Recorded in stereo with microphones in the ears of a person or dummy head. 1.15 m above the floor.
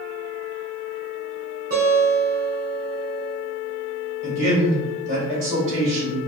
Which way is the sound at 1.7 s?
45° right (ahead or behind).